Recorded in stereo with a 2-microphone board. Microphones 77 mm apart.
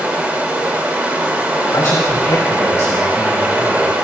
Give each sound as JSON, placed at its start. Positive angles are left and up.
{"t": 0.0, "sound": "running water", "side_deg": -20, "distance_m": 2.0}
{"t": 1.7, "sound": "a man speaking", "side_deg": 45, "distance_m": 2.0}